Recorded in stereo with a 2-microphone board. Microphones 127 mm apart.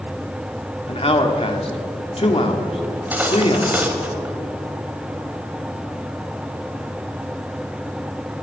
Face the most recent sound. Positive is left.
turn(degrees=-15)  # may be behind; listen again after turning